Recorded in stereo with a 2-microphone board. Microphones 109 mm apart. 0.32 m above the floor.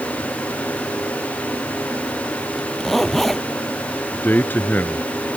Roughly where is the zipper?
Centre.